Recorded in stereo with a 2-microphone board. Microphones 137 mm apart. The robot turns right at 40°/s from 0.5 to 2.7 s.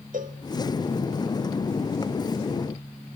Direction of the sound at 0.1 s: 75° right (ahead or behind).